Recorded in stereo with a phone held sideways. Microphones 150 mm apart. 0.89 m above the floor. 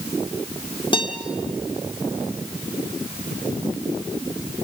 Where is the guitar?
35° left (ahead or behind), 1.9 m.